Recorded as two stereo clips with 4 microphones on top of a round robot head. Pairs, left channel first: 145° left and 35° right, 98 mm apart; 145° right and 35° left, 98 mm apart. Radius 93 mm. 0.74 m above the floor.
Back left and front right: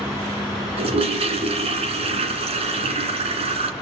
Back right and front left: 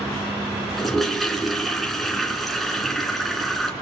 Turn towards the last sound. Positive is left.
turn(degrees=-60)